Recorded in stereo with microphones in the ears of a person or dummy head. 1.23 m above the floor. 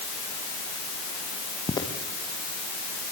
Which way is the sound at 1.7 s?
20° left (ahead or behind).